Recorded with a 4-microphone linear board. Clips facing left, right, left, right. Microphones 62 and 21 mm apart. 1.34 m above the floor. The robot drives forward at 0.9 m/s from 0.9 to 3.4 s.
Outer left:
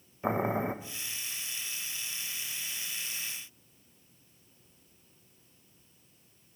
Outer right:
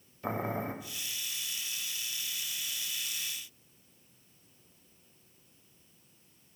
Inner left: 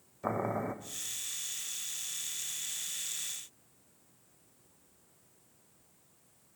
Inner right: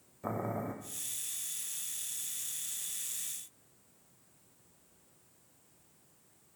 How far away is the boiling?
About 0.7 m.